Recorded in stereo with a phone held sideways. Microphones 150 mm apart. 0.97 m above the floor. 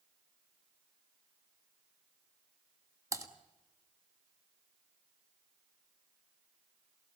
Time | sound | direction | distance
3.1 | typing on a keyboard | 25° right (ahead or behind) | 1.7 m